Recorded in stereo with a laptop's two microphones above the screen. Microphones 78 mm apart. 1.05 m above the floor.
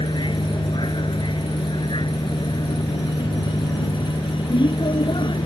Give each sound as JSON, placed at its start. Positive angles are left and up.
{"t": 0.0, "sound": "a vehicle", "side_deg": 90}